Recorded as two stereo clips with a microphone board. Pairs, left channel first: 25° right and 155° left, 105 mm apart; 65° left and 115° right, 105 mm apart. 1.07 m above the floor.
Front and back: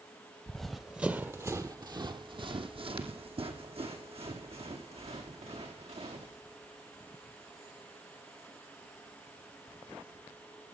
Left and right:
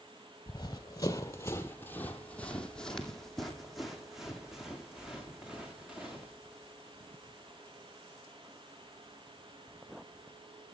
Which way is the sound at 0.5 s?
60° left.